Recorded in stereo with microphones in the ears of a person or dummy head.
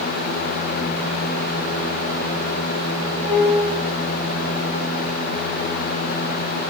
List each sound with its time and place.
3.2 s a piano: 40° right (ahead or behind), 5 m